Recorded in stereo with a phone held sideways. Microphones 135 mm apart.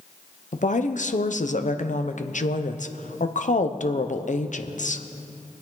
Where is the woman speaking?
70° left (ahead or behind), 0.7 m.